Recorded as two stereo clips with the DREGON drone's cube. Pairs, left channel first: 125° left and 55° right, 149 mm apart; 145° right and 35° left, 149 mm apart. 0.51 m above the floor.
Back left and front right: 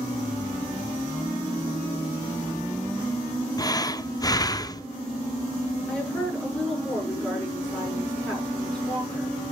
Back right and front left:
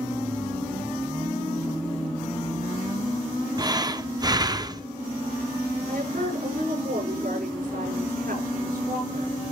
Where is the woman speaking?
40° left, 7 m.